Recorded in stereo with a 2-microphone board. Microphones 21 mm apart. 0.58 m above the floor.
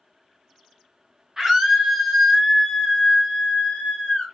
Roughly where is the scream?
Right.